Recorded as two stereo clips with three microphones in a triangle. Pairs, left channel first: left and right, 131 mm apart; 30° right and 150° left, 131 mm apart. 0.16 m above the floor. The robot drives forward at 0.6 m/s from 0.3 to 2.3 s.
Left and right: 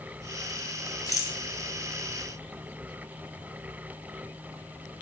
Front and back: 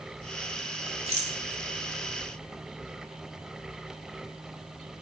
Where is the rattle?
140° left, 0.6 m; by 1.4 s 155° left, 0.7 m.